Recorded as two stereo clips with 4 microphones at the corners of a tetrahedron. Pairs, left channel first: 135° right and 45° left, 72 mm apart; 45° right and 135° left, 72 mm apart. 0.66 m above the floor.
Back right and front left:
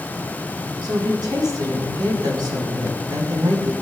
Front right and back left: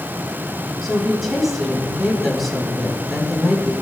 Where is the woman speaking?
50° left, 4 m.